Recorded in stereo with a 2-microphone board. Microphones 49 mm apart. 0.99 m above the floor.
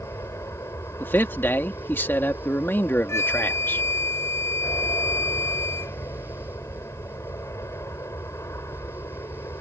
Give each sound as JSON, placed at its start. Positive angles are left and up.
{"t": 0.0, "sound": "an aircraft", "side_deg": 70}
{"t": 1.0, "sound": "a man speaking", "side_deg": 45}
{"t": 3.1, "sound": "a flute", "side_deg": 60}